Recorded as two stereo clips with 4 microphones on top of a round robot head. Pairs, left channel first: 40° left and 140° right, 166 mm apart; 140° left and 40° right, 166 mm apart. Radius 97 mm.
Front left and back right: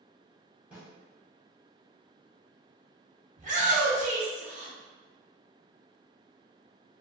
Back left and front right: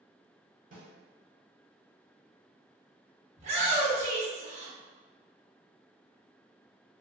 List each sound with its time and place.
0.7 s a snare drum: 60° right, 1.2 m
3.4 s a shout: 90° right, 1.5 m